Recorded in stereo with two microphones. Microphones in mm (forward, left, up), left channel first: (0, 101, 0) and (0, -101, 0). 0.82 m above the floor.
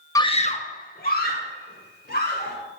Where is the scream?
15° left (ahead or behind), 0.6 m; by 2.6 s 50° left (ahead or behind), 3.5 m.